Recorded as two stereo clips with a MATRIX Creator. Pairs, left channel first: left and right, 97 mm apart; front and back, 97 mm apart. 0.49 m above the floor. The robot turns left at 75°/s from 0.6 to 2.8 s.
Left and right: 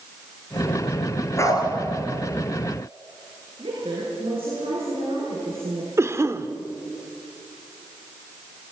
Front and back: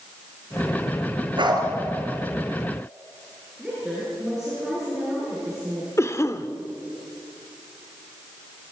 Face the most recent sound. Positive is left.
turn(degrees=-45)